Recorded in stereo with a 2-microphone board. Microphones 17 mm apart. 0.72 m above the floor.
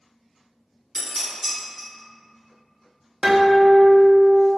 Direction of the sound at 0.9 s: 20° right (ahead or behind).